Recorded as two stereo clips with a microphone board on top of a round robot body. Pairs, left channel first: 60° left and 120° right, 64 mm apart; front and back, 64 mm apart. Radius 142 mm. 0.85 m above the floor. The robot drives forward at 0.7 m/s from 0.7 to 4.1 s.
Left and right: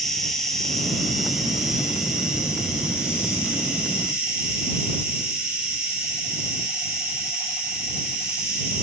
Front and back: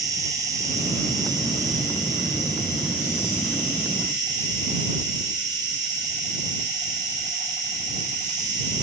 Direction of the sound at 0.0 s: 145° left.